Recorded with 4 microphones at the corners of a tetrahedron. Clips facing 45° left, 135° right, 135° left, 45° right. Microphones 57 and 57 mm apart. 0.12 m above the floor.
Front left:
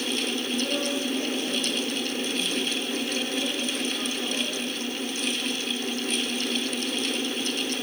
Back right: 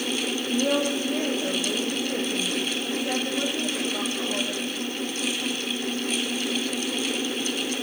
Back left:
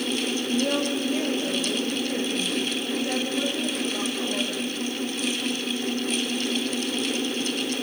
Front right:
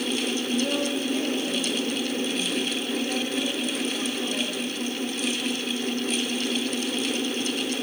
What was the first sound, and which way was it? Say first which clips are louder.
A woman speaking: back right 7 dB, back left 2 dB; 160° right.